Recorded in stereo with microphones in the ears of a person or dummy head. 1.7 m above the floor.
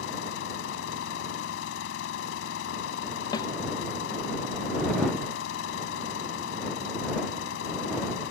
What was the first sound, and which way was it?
An engine running, 85° left.